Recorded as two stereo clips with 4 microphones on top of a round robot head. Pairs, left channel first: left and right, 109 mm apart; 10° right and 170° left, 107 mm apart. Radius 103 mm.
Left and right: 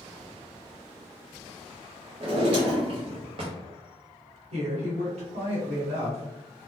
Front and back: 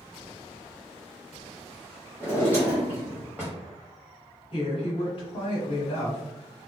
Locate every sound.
2.2 s a drawer: 110° right, 0.6 m
4.5 s a woman speaking: 55° right, 1.3 m